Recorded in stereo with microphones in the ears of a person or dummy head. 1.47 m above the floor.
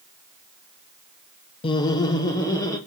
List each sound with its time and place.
1.6 s laughter: 25° left (ahead or behind), 0.7 m; by 2.8 s 15° left (ahead or behind), 2.5 m